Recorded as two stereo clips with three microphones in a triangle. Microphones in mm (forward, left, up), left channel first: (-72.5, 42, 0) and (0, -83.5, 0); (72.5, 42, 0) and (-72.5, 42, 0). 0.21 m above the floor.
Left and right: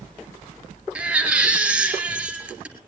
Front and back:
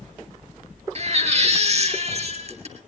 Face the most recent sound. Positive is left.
turn(degrees=-140)